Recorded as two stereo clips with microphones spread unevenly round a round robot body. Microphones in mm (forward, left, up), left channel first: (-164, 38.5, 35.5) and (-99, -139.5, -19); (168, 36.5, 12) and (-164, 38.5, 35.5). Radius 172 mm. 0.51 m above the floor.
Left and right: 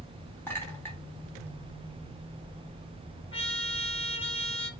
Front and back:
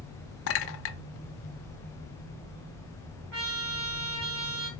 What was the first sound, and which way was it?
A clink, 15° left.